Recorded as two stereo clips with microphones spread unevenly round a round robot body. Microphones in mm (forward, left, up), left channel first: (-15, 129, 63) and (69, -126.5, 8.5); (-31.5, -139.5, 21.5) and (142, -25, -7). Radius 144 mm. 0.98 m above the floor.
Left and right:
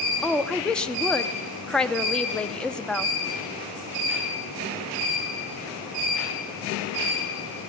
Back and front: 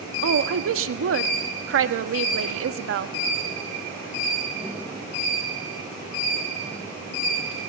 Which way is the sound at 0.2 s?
20° left.